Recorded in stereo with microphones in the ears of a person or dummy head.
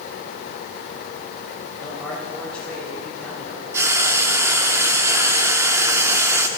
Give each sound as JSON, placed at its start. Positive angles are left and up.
{"t": 1.8, "sound": "a man speaking", "side_deg": 10, "distance_m": 7.5}
{"t": 3.7, "sound": "frying", "side_deg": -15, "distance_m": 1.8}